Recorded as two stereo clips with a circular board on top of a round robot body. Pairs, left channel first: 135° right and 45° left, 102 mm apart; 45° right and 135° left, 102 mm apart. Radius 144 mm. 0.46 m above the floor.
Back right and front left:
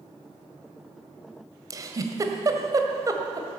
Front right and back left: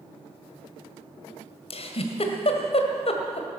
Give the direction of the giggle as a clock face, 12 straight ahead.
12 o'clock.